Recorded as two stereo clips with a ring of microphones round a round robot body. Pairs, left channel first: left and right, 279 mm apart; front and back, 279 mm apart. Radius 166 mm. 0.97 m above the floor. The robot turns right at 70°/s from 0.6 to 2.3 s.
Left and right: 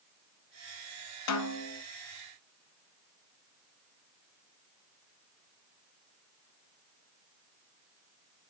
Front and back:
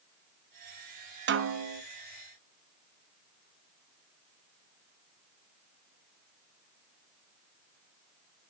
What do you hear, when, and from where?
1.3 s a snare drum: 125° left, 0.6 m; by 1.8 s 165° left, 0.6 m